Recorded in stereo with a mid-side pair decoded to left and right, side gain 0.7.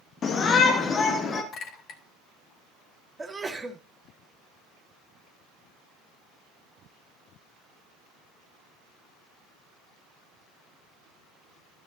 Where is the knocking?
No knocking in this recording.